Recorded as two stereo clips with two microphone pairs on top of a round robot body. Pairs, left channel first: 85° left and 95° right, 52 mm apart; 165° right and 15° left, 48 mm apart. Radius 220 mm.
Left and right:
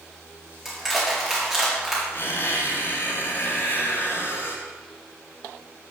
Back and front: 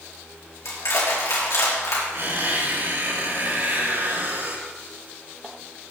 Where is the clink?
I don't hear a clink.